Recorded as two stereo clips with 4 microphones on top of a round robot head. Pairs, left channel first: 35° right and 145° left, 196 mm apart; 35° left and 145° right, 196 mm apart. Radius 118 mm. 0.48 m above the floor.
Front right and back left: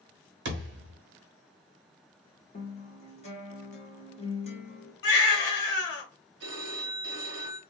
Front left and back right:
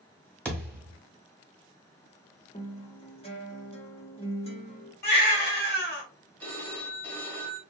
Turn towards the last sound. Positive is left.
turn(degrees=115)